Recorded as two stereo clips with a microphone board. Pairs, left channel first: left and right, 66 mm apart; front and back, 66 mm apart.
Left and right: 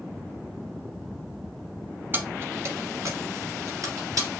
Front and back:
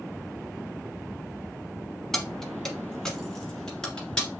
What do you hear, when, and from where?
2.1 s keys jangling: 80° right, 0.9 m